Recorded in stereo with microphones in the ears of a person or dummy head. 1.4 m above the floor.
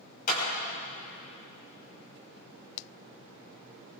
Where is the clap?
55° left (ahead or behind), 5.5 m.